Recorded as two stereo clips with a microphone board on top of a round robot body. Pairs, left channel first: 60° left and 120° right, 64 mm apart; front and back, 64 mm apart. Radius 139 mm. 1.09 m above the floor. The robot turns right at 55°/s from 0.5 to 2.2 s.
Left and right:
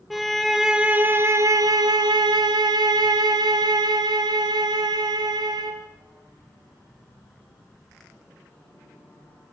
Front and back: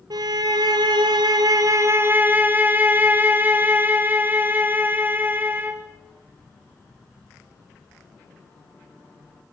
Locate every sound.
0.1 s a violin: 150° left, 1.3 m; by 5.8 s 115° right, 1.3 m